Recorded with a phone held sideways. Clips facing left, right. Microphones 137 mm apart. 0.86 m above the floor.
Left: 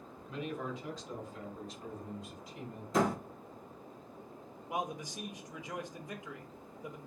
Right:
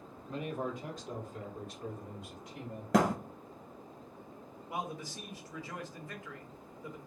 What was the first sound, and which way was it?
A man speaking, 40° right (ahead or behind).